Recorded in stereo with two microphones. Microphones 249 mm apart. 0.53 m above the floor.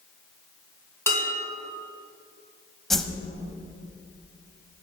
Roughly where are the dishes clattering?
Centre.